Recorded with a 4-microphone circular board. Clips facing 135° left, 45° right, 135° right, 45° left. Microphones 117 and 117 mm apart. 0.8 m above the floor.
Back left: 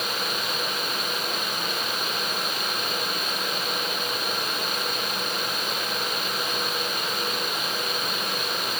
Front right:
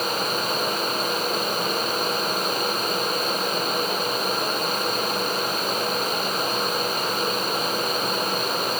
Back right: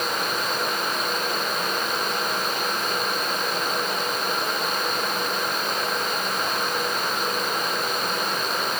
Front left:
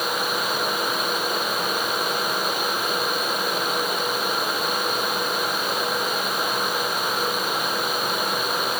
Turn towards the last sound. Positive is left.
No sound to turn to.